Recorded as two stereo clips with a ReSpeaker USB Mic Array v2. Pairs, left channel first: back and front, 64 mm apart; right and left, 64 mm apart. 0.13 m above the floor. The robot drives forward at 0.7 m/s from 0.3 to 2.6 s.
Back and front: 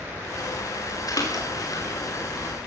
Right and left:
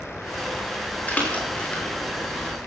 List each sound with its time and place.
1.1 s a splash: 155° right, 8.5 m